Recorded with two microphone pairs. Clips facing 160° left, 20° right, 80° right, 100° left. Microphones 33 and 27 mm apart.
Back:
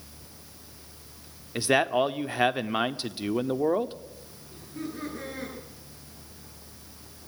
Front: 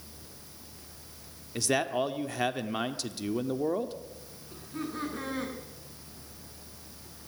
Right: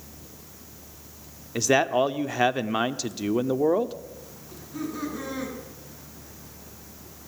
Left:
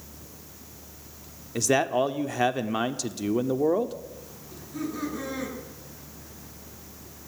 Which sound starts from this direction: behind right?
A man speaking, at 1.6 s.